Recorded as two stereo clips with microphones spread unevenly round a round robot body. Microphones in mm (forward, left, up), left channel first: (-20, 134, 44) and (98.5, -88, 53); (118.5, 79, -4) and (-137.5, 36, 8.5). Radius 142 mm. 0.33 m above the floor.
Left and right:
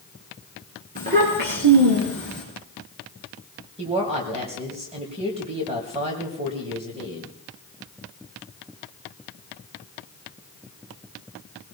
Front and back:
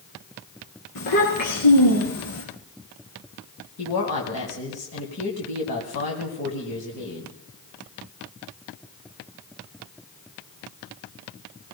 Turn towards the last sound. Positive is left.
turn(degrees=0)